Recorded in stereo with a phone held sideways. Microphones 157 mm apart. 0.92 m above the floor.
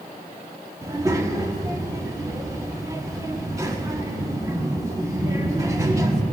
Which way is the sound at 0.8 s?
20° right (ahead or behind).